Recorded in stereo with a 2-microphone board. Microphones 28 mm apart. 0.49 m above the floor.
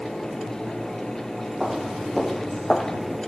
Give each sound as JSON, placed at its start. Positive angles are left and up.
{"t": 1.6, "sound": "footsteps", "side_deg": -10, "distance_m": 3.5}